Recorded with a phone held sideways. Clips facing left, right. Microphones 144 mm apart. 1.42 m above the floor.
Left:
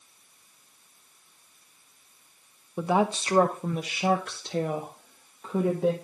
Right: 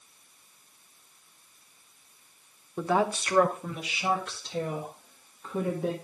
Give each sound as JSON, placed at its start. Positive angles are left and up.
{"t": 2.8, "sound": "a woman speaking", "side_deg": 10, "distance_m": 0.9}